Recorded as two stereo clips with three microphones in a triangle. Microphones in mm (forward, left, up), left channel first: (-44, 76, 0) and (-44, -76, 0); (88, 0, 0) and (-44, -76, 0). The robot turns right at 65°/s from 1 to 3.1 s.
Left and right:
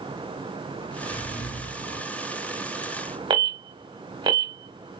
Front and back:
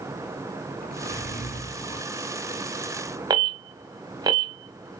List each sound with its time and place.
0.8 s a zipper: 30° left, 2.5 m; by 2.1 s 100° left, 2.5 m
3.3 s an alarm: 115° right, 1.1 m